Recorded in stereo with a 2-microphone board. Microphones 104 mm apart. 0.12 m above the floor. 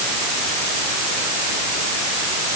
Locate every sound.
Only background noise.